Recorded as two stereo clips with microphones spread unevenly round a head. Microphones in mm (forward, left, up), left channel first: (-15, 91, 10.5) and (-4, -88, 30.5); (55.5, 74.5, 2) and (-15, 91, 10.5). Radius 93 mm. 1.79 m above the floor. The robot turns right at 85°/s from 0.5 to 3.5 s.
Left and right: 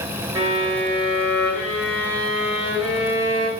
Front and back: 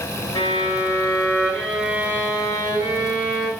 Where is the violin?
25° right, 2.5 m; by 3.5 s 130° right, 2.5 m.